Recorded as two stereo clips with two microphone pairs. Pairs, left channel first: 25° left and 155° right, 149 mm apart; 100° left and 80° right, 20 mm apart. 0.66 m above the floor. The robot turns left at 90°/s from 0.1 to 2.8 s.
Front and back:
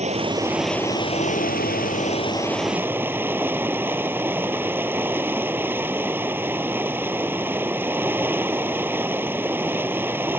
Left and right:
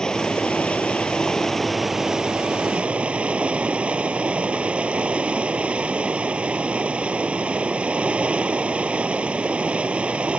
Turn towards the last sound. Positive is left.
turn(degrees=-80)